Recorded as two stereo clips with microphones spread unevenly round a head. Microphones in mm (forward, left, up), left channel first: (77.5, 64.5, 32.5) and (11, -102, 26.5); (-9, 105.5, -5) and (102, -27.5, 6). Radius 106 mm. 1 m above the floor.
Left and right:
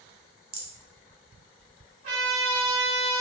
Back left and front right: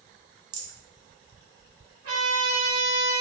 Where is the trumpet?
120° right, 2.0 m.